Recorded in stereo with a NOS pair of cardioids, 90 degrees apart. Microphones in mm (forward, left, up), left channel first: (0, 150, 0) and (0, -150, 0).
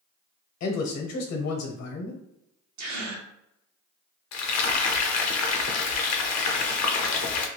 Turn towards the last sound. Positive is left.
turn(degrees=60)